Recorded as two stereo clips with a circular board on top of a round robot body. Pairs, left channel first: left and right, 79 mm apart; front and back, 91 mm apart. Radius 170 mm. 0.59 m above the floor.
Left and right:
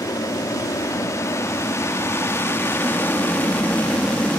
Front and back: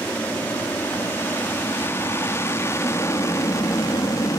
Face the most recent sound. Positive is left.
turn(degrees=25)